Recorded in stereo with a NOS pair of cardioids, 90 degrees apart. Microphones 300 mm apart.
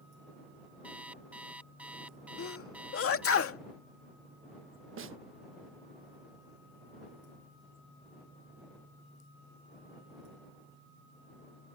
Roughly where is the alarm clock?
Ahead.